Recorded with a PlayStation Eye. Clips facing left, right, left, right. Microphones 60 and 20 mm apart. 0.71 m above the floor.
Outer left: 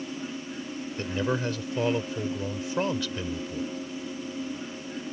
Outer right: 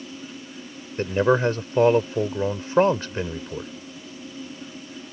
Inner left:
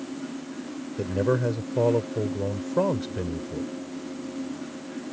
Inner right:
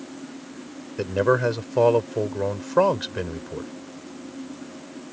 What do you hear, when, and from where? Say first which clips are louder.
1.0 s a man speaking: outer right 9 dB, inner right 4 dB; 40° right (ahead or behind)